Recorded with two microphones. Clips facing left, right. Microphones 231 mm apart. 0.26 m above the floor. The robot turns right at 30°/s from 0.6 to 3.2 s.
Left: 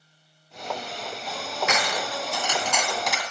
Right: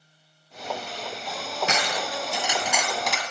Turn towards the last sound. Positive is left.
turn(degrees=5)